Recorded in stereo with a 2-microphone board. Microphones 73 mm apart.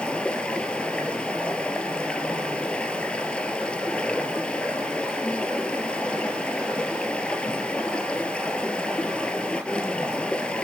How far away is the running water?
About 2 m.